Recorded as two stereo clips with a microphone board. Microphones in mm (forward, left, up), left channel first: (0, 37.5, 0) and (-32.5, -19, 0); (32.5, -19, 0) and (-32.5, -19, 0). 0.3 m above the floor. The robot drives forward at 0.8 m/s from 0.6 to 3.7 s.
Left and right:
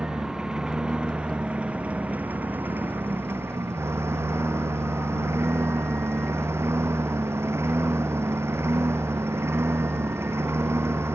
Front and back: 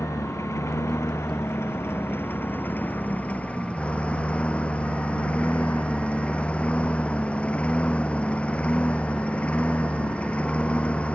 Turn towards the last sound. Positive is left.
turn(degrees=-70)